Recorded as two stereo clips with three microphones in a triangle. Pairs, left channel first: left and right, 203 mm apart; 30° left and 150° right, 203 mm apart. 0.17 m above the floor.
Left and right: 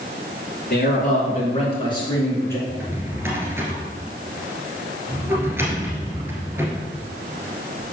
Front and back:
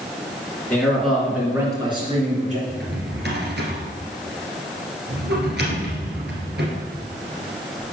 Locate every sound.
0.7 s a man speaking: 110° left, 2.5 m; by 2.6 s 165° left, 3 m
2.7 s a drawer: 170° right, 1.9 m